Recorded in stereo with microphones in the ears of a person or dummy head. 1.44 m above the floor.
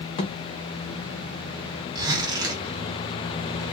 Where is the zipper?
20° right (ahead or behind), 0.9 m.